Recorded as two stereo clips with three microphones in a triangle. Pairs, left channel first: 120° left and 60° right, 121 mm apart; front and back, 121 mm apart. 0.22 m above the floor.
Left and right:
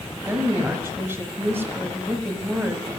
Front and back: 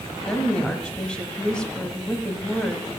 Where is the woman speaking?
65° right, 1.3 m.